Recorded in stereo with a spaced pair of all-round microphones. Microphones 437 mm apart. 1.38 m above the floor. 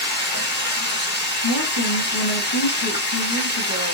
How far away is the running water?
About 1.2 m.